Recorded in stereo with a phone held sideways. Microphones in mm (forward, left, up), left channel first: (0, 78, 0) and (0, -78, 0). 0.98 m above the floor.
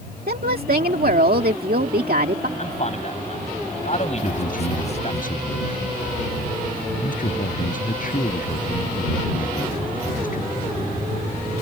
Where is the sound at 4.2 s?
60° left (ahead or behind).